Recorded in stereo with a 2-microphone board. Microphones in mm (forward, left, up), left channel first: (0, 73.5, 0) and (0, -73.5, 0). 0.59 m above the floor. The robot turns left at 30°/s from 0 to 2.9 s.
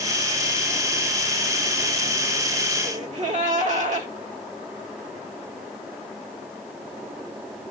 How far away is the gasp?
About 1.4 m.